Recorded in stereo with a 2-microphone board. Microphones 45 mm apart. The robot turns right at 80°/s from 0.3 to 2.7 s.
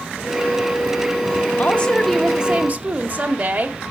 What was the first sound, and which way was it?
A woman speaking, 135° left.